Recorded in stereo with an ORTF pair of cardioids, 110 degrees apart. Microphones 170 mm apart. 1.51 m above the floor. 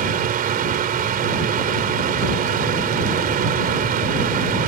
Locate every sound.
0.0 s a fan: 60° right